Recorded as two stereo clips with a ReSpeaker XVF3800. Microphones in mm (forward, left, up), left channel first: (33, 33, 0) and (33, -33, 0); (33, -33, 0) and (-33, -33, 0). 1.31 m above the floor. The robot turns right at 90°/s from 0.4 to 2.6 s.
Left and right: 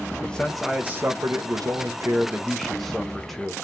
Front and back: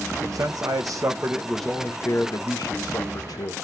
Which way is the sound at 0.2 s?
165° left.